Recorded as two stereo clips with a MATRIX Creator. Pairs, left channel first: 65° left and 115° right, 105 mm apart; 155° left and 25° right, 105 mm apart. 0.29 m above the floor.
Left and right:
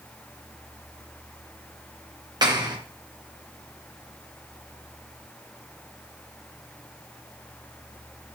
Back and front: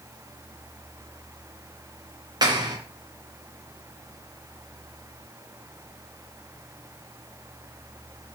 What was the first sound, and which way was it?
A clap, 70° right.